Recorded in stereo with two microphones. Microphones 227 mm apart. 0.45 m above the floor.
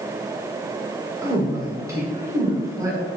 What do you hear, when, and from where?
1.2 s a woman speaking: 15° right (ahead or behind), 1.3 m